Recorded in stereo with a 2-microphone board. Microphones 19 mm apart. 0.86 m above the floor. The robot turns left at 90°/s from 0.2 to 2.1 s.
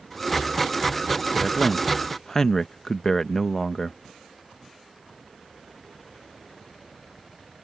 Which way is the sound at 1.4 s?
175° right.